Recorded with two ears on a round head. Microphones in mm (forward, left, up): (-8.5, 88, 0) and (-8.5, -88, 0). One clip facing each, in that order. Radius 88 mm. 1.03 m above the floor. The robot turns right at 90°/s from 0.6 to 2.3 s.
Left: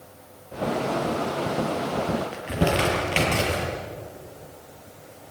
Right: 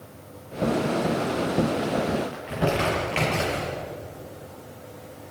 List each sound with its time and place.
2.3 s crumpling: 50° left (ahead or behind), 7 m